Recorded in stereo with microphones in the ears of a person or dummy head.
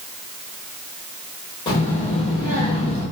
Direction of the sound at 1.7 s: 25° left (ahead or behind).